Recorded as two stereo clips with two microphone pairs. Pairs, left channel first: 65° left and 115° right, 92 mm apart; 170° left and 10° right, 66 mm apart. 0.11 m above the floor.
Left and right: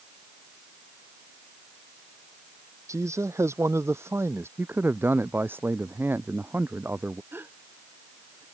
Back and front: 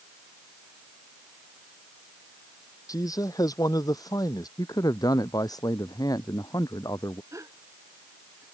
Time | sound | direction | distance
2.9 | a man speaking | 170° right | ?
4.6 | a man speaking | straight behind | ?
7.3 | a gasp | 50° right | ?